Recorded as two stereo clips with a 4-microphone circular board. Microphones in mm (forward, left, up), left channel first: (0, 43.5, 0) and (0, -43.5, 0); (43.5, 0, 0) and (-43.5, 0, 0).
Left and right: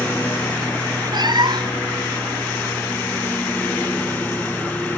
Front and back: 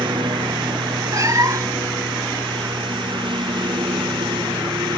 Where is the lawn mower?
160° left.